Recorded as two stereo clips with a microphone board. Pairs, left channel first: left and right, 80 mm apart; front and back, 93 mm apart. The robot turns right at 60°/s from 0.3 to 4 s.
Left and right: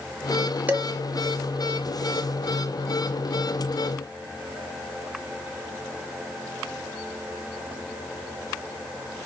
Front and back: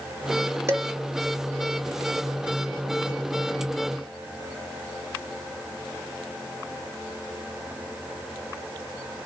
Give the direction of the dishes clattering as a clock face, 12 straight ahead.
5 o'clock.